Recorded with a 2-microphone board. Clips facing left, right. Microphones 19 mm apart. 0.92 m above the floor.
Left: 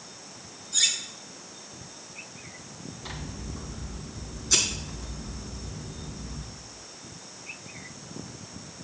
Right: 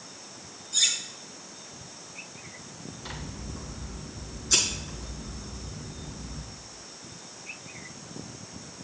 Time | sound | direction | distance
0.7 | cutlery clinking | 10° left (ahead or behind) | 2.5 m
3.0 | scissors | 5° left (ahead or behind) | 4 m